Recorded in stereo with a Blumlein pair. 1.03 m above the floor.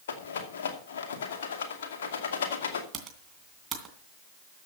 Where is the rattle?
60° left, 2.5 m.